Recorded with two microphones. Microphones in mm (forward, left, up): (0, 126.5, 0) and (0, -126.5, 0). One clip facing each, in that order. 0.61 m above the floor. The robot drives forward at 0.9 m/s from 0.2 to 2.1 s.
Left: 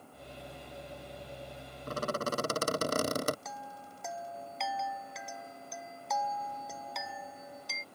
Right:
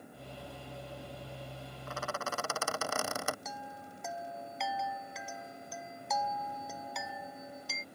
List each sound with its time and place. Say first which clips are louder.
1.9 s a squeak: left 6 dB; 40° left (ahead or behind)
3.5 s a chime: right 1 dB; centre (ahead or behind)